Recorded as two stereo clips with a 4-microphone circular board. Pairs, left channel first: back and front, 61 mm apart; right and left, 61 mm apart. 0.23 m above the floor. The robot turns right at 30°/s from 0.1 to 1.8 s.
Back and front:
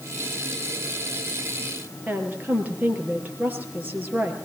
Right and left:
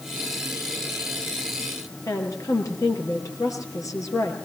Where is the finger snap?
I don't hear a finger snap.